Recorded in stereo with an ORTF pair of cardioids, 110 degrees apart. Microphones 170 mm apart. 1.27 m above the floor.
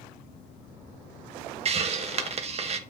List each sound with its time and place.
1.6 s a hiss: 35° right, 1.1 m